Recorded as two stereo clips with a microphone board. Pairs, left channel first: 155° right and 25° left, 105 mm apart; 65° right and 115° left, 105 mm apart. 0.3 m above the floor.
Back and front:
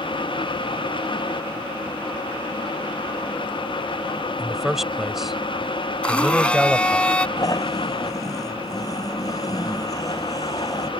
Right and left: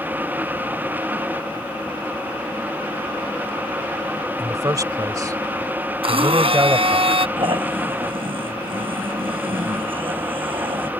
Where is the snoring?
145° left.